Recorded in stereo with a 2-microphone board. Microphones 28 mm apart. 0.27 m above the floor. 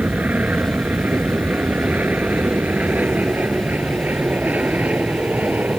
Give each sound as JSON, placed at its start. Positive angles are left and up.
{"t": 0.0, "sound": "an aircraft", "side_deg": -70}